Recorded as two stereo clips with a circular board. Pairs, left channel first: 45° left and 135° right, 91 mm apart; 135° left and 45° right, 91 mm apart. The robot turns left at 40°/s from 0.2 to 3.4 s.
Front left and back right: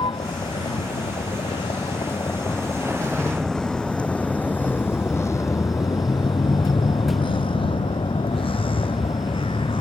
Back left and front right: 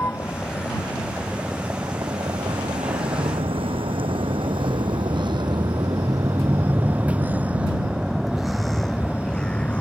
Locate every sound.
0.0 s a vehicle: 70° left; by 9.8 s 60° left